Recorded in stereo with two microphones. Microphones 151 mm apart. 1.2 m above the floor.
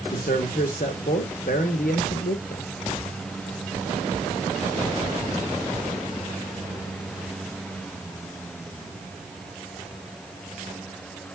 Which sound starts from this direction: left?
A man speaking, at 0.1 s.